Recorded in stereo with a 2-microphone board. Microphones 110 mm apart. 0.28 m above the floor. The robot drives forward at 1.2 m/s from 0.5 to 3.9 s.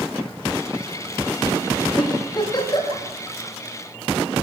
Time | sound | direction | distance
2.0 | a giggle | 35° left (ahead or behind) | 9.5 m